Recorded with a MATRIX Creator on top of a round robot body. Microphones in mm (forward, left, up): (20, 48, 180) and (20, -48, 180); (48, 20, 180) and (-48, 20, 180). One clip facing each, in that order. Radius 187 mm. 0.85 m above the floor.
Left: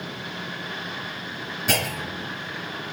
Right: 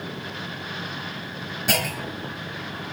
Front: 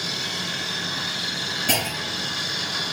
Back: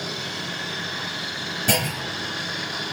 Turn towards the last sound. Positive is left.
turn(degrees=-175)